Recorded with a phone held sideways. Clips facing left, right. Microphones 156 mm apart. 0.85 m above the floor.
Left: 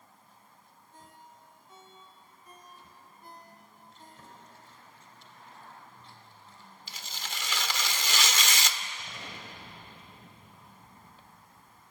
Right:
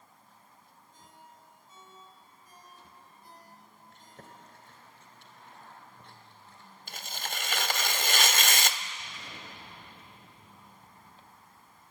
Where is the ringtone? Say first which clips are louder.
Left 2 dB; 75° left (ahead or behind), 3.5 m.